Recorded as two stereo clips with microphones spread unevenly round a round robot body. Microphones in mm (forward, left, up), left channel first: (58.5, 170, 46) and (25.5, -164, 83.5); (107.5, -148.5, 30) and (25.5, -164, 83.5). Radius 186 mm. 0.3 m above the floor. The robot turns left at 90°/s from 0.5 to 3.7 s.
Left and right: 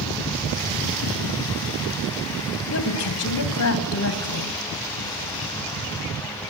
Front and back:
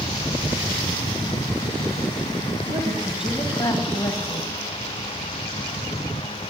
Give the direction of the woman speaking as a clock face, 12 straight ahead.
7 o'clock.